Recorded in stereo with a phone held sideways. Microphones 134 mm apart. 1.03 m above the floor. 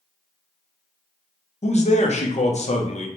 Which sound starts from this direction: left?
A man speaking, at 1.6 s.